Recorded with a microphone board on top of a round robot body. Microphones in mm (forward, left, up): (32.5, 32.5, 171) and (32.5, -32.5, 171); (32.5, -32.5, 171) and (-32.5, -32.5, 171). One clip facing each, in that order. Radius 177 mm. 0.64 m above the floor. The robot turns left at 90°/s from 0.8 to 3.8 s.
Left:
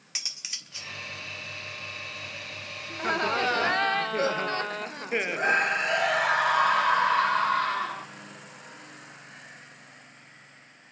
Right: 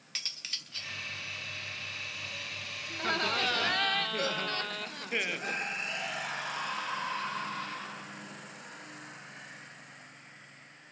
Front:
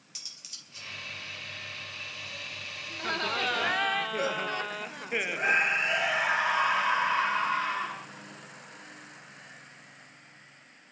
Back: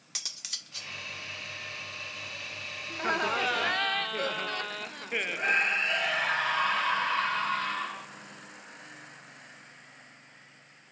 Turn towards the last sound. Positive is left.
turn(degrees=75)